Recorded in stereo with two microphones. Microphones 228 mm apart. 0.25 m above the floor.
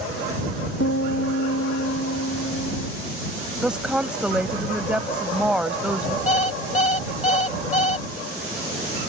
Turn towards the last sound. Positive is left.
turn(degrees=30)  # may be behind; listen again after turning